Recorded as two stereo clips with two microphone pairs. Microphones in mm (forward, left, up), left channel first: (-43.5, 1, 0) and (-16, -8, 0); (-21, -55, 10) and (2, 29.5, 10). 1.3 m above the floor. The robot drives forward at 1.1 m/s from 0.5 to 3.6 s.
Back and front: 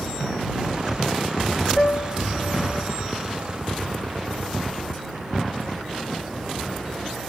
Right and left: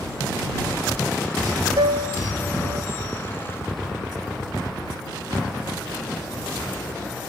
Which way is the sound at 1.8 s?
100° left.